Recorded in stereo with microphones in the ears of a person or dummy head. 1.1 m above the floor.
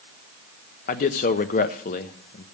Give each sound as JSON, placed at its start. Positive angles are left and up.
{"t": 0.9, "sound": "a man speaking", "side_deg": 45, "distance_m": 0.9}